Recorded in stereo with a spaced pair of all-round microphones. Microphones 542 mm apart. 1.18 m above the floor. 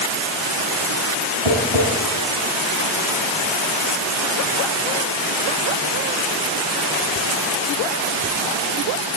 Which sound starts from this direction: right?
Tapping, at 1.4 s.